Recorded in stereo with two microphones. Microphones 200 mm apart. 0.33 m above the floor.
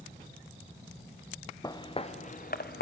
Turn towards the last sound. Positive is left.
turn(degrees=55)  # may be behind; listen again after turning